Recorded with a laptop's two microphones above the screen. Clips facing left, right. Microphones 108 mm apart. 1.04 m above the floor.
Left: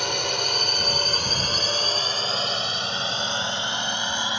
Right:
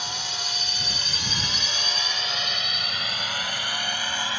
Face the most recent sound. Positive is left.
turn(degrees=20)  # may be behind; listen again after turning